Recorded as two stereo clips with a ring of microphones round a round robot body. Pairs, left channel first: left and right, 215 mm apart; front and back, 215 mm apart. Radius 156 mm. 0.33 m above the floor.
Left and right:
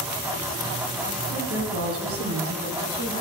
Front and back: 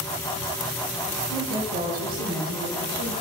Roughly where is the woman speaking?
Right.